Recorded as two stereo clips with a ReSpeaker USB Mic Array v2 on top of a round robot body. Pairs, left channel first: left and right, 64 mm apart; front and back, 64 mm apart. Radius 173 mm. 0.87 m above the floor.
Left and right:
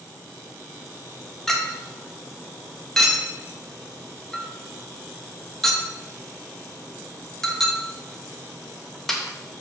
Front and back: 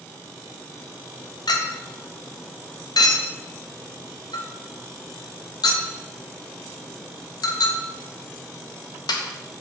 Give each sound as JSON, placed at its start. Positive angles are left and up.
{"t": 1.5, "sound": "a clink", "azimuth_deg": 5, "distance_m": 0.8}